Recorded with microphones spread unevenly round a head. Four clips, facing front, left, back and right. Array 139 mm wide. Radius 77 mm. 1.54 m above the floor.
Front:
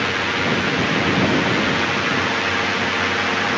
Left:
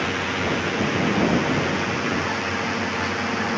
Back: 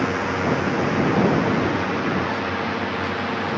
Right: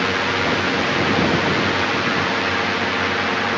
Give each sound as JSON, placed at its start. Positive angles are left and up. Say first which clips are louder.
{"t": 0.0, "sound": "a drone", "louder": "right 4 dB, even", "azimuth_deg": -100}